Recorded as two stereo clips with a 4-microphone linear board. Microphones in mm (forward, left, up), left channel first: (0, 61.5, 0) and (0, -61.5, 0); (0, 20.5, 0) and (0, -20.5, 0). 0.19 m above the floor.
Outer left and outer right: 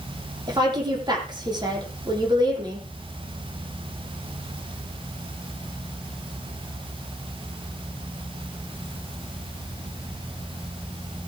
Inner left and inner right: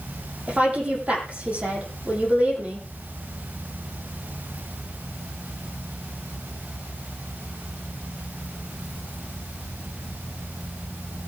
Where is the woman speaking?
35° right (ahead or behind), 7.5 m.